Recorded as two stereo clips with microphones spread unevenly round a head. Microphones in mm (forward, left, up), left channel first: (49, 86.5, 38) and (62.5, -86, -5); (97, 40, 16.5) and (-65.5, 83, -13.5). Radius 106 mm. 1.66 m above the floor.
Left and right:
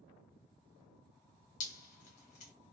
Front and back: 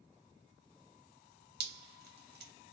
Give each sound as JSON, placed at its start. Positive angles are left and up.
{"t": 1.6, "sound": "dripping", "azimuth_deg": 140, "distance_m": 0.7}